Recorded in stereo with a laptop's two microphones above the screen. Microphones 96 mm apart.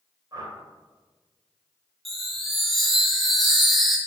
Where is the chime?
Centre (ahead or behind), 1.7 m.